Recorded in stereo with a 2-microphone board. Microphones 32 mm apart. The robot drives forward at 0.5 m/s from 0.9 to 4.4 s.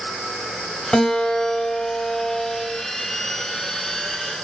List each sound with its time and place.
0.9 s a guitar: 30° left (ahead or behind), 1.5 m; by 2.8 s 25° left (ahead or behind), 1.8 m